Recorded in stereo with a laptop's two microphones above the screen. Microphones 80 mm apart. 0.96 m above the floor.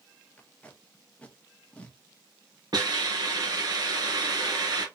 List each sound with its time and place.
0.4 s tape being pulled: 15° left (ahead or behind), 1.1 m
2.7 s a hiss: 60° right (ahead or behind), 2.5 m